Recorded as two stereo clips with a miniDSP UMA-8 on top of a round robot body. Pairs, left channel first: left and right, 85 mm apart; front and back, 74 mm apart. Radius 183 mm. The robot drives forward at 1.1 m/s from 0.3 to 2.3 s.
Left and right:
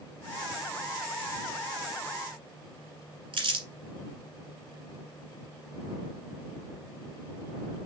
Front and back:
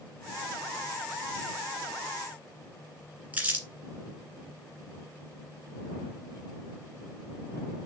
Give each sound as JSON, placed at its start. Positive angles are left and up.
{"t": 3.3, "sound": "crumpling", "azimuth_deg": -110, "distance_m": 1.5}